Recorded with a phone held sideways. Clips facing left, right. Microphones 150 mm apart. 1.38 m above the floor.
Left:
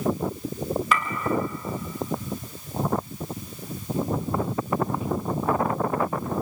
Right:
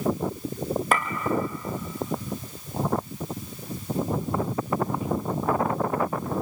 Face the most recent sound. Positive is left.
turn(degrees=-50)  # may be behind; listen again after turning